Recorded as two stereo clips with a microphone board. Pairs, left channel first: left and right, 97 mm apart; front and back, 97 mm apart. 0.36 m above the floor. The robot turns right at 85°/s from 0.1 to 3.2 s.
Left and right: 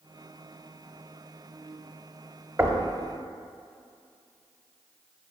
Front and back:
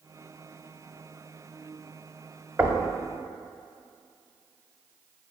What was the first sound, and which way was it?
Knocking, 125° right.